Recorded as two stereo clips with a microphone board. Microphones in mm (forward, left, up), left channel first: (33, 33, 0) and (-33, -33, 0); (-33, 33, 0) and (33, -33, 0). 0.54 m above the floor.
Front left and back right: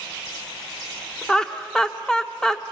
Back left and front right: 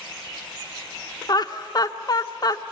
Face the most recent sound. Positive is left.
turn(degrees=125)